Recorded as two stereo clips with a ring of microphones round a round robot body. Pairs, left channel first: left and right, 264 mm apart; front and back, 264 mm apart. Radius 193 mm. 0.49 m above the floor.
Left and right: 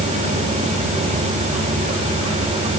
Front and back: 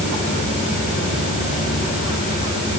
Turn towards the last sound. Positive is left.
No sound to turn to.